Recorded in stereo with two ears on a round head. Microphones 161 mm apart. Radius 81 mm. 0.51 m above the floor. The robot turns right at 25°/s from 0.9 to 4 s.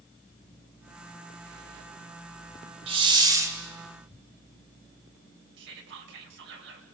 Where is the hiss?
30° right (ahead or behind), 1.7 m; by 3.6 s 15° right (ahead or behind), 1.7 m.